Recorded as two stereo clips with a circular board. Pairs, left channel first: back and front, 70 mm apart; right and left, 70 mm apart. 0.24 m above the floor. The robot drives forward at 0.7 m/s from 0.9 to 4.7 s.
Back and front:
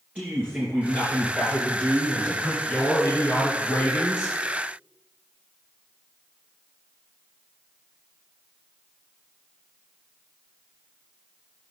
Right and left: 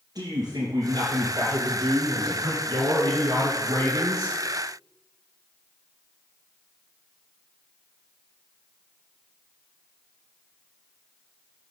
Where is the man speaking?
70° left, 3.5 m; by 4.4 s 115° left, 3.5 m.